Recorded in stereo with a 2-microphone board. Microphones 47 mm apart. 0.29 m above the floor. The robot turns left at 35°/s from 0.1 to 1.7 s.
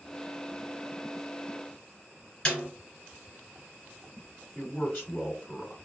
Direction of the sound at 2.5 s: 20° left (ahead or behind).